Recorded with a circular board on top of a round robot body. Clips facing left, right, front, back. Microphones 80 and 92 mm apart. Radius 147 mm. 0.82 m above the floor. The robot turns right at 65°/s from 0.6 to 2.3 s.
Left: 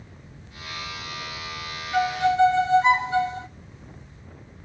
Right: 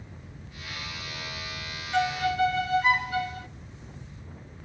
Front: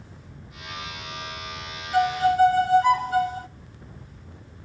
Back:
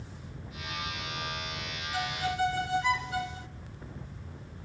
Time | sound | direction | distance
1.9 | a violin | 5° left | 0.6 m